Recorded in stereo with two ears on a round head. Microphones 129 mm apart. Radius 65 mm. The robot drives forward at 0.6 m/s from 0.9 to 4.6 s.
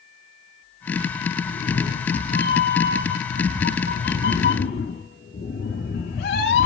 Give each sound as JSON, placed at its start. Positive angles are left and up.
{"t": 1.4, "sound": "a cat meowing", "side_deg": 60, "distance_m": 3.5}